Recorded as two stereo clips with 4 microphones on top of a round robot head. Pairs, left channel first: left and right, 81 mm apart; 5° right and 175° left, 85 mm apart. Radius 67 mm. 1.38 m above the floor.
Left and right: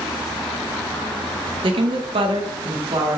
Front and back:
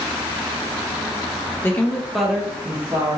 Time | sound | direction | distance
1.6 | a woman speaking | 70° right | 0.6 m